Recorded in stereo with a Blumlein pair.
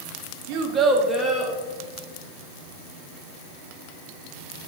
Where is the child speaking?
45° right, 0.6 m; by 1.5 s 25° left, 0.8 m.